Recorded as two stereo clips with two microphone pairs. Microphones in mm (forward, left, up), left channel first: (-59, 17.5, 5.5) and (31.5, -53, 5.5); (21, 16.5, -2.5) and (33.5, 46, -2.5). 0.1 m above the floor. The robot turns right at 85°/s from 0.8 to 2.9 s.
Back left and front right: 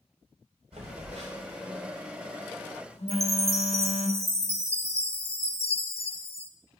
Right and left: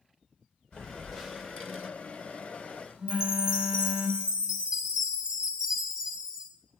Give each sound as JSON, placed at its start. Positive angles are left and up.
{"t": 0.7, "sound": "a phone buzzing", "azimuth_deg": -70, "distance_m": 4.0}
{"t": 3.1, "sound": "a chime", "azimuth_deg": 15, "distance_m": 1.1}